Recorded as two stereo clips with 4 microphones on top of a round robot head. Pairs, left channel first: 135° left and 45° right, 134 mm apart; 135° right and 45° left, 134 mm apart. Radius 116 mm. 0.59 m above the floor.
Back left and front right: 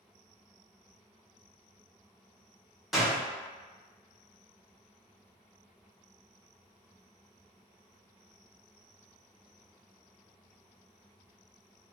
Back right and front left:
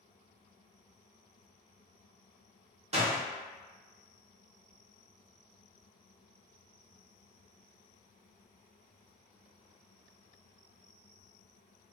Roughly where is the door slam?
Ahead left.